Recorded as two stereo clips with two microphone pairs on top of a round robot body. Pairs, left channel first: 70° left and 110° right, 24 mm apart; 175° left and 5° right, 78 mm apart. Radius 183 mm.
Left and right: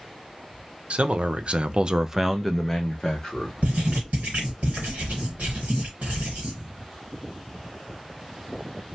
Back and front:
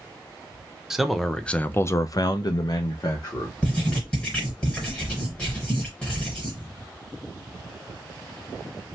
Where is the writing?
115° right, 0.9 m.